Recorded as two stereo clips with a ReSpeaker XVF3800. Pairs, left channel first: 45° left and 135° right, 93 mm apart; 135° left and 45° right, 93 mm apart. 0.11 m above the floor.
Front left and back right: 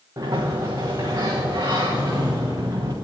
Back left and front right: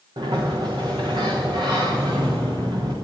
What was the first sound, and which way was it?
A sliding door, 80° right.